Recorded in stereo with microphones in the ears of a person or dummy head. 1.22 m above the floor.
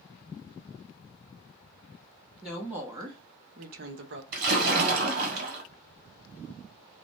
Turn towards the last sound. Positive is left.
turn(degrees=-55)  # may be behind; listen again after turning